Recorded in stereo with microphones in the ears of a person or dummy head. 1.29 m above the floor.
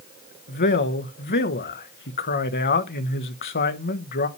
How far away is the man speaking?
About 1.0 m.